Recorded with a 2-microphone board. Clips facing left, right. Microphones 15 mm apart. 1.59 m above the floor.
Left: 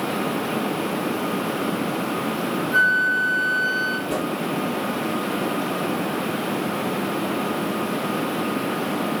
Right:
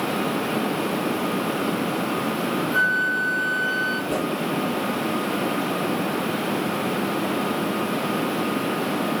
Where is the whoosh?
25° left (ahead or behind), 9 m.